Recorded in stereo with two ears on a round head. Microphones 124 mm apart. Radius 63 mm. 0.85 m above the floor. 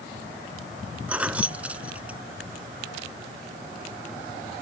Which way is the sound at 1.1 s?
10° right (ahead or behind).